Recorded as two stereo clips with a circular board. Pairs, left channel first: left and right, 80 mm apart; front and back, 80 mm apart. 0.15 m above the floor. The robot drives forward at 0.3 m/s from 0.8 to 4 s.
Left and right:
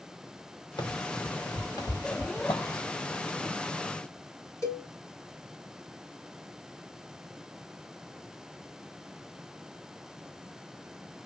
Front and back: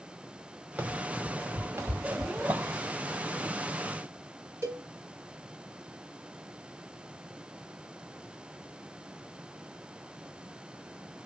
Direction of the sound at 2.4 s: 115° left.